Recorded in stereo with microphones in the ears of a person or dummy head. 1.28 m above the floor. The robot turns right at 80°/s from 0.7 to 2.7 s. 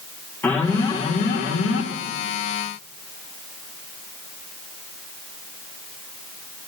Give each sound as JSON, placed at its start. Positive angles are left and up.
{"t": 0.4, "sound": "an alarm", "azimuth_deg": 10, "distance_m": 3.0}